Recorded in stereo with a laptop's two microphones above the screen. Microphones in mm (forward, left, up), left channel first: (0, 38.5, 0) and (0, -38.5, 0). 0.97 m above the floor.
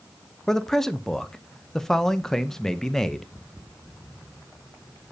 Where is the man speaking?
5° left (ahead or behind), 0.5 m.